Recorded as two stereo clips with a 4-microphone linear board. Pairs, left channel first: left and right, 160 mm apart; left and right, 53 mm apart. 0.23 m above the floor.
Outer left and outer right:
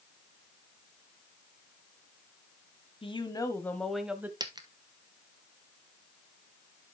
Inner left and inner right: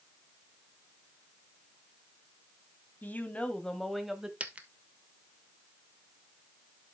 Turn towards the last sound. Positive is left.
turn(degrees=-25)  # may be behind; listen again after turning